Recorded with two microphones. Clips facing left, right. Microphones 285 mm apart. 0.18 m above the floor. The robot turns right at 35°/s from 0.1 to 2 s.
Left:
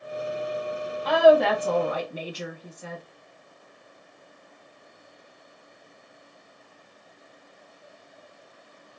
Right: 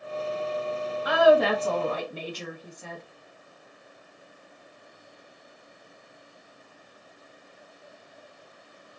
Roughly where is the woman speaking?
Ahead.